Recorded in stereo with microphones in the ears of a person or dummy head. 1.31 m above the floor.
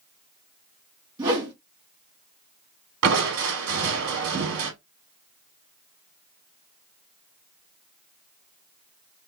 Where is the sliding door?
I don't hear a sliding door.